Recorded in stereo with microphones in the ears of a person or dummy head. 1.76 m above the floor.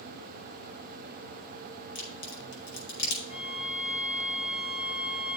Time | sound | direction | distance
1.9 | a crack | 65° left (ahead or behind) | 5.5 m
3.3 | a violin | 40° left (ahead or behind) | 3.5 m